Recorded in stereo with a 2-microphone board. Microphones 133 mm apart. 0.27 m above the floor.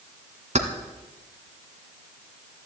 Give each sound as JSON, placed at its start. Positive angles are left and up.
{"t": 0.6, "sound": "keys jangling", "side_deg": -65, "distance_m": 1.4}